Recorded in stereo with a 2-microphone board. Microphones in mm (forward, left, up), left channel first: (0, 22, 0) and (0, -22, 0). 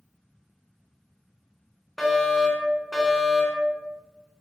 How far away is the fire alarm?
About 3.5 m.